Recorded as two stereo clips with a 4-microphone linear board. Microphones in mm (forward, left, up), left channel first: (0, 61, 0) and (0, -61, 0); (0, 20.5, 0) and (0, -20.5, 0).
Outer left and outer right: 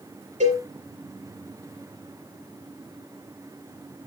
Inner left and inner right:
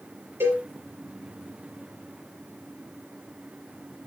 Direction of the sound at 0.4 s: 70° right (ahead or behind).